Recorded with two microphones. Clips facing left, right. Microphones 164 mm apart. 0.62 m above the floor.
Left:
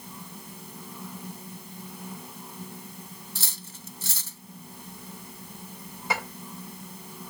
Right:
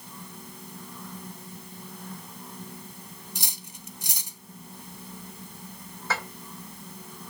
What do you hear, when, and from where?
3.4 s cutlery clinking: 15° right (ahead or behind), 0.6 m
6.1 s dishes clattering: 15° left (ahead or behind), 1.7 m